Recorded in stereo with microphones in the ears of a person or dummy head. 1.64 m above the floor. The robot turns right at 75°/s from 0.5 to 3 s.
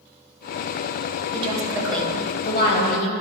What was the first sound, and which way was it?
A woman speaking, 40° right.